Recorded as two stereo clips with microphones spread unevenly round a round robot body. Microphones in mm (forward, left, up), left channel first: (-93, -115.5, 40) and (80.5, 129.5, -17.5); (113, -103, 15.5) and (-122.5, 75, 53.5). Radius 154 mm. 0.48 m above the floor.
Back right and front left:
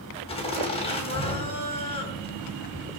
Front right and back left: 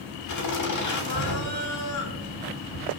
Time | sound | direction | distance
0.3 | laughter | 50° right | 3.5 m